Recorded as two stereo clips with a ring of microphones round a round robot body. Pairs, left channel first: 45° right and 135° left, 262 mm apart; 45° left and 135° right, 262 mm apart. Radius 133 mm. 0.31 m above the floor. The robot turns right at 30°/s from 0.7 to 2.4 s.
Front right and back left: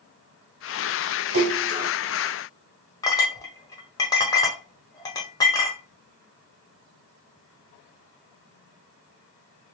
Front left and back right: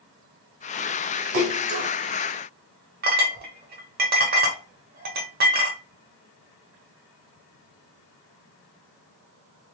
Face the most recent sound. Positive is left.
turn(degrees=-115)